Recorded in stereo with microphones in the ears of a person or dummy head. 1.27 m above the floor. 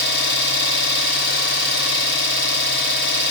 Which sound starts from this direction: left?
An engine running, at 0.0 s.